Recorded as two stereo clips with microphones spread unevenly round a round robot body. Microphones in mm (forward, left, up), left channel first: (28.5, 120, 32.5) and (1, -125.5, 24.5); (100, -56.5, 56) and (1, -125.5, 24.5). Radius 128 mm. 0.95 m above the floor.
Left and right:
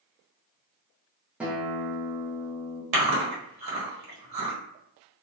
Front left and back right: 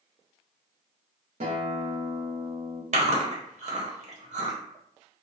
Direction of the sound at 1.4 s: Straight behind.